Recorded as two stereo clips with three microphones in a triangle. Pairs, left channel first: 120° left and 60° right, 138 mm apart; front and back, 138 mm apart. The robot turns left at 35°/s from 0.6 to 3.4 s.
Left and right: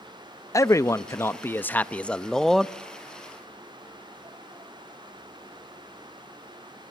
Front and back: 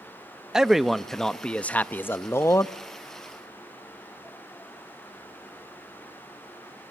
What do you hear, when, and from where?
0.5 s a man speaking: 100° left, 0.5 m; by 2.7 s 30° left, 0.5 m